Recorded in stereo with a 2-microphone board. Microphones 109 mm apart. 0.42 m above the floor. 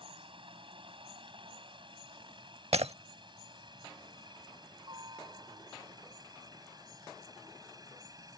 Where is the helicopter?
50° right (ahead or behind); by 8.4 s 35° right (ahead or behind).